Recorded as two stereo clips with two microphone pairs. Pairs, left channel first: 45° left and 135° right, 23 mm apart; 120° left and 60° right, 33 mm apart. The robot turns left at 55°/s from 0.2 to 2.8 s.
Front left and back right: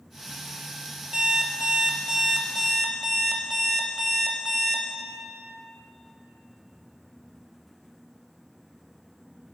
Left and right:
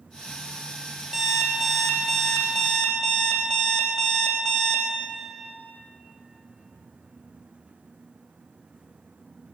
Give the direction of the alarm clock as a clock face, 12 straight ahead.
4 o'clock.